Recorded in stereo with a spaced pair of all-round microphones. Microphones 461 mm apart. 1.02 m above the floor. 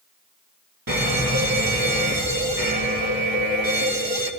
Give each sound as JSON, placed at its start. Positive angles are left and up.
{"t": 0.9, "sound": "an alarm", "side_deg": -45, "distance_m": 1.6}